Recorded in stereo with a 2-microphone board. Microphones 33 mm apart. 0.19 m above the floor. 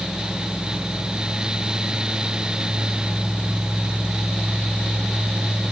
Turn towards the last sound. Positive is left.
No sound to turn to.